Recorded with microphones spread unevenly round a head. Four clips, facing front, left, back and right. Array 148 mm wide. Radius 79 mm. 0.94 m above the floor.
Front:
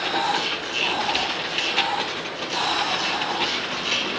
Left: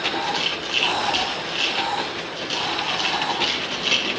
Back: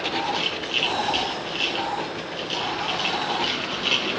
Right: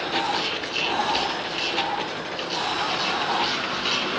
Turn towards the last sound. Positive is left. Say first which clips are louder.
# even, front 2 dB
turn(degrees=135)